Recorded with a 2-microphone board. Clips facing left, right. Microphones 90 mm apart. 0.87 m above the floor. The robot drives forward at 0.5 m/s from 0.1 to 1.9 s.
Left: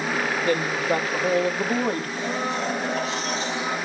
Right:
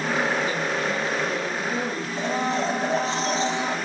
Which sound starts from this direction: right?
A blender, at 2.2 s.